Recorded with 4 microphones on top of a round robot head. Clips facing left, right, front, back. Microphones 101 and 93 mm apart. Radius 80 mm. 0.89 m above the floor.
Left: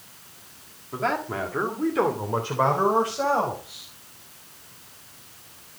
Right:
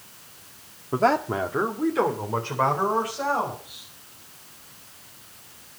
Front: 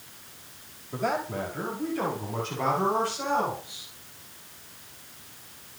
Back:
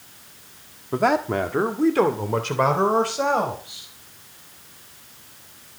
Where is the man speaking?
140° right, 1.8 m; by 3.9 s 155° left, 5 m.